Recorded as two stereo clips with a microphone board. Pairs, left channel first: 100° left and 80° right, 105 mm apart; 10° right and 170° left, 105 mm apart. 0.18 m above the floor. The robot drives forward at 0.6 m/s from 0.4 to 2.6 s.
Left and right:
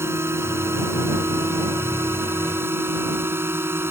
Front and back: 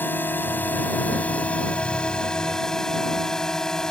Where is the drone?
55° right; by 3.9 s 85° right.